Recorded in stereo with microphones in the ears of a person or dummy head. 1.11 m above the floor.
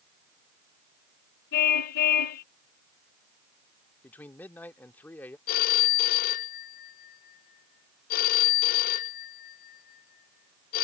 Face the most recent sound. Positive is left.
turn(degrees=50)  # may be behind; listen again after turning